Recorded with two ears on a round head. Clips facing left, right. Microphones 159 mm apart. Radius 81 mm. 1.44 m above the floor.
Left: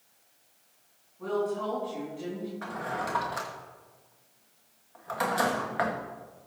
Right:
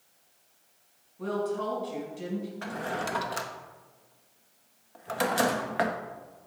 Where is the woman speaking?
55° right (ahead or behind), 5.5 m.